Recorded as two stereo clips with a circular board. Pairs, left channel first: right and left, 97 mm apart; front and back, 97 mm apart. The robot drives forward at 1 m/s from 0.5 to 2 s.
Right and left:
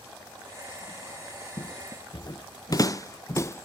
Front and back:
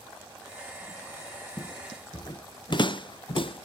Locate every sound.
1.6 s footsteps: 50° right; by 3.6 s 30° right